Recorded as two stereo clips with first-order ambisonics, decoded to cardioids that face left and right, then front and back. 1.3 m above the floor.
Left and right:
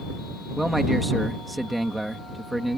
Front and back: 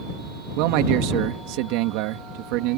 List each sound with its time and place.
0.6 s a man speaking: 175° right